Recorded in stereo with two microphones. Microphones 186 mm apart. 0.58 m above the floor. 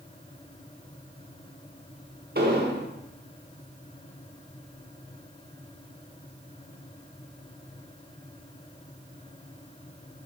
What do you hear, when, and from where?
2.4 s an explosion: 55° right (ahead or behind), 1.1 m